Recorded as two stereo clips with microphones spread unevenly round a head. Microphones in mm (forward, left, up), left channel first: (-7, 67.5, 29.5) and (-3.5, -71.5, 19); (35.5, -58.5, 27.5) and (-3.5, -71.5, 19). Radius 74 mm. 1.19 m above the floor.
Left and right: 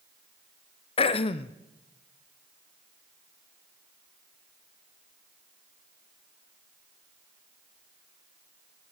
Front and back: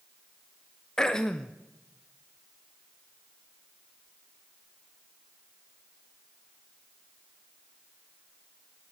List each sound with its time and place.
1.0 s throat clearing: 100° left, 0.5 m